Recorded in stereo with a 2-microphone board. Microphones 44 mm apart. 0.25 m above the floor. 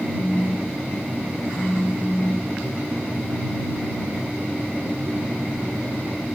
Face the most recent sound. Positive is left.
turn(degrees=60)  # may be behind; listen again after turning